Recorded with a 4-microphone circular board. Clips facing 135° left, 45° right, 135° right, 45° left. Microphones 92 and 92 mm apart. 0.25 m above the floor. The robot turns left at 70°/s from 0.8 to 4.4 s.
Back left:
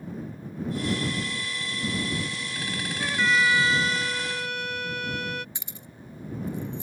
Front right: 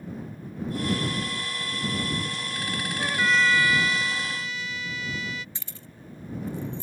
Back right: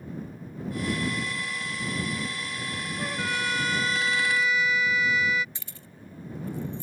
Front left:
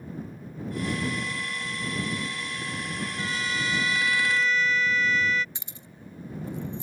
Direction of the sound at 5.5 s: 85° left.